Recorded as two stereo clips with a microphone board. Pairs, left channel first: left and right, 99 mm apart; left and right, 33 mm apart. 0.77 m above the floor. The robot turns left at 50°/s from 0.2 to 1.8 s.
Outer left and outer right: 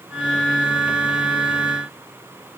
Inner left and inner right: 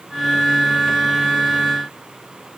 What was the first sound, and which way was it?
Only background noise.